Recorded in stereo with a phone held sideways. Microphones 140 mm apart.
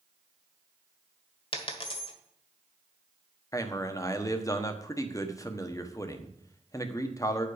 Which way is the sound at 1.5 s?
40° left (ahead or behind).